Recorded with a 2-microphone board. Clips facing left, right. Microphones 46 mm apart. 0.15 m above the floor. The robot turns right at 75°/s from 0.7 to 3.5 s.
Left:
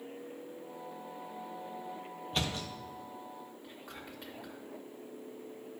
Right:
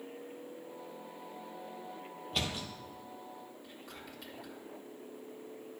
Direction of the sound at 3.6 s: 20° left (ahead or behind).